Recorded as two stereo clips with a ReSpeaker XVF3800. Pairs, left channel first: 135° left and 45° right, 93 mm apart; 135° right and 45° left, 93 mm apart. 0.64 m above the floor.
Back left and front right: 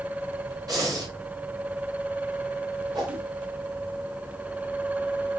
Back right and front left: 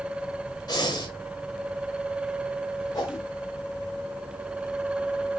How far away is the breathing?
About 2.5 m.